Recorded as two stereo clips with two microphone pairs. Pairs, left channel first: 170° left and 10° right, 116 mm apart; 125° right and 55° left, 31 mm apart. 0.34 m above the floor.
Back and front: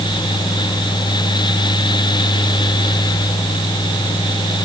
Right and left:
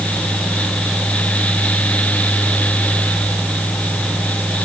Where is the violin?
I don't hear a violin.